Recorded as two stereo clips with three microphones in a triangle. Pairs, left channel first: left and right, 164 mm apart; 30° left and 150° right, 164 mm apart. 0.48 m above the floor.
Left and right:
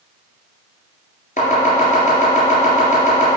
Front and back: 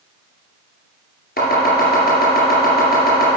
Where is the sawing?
I don't hear sawing.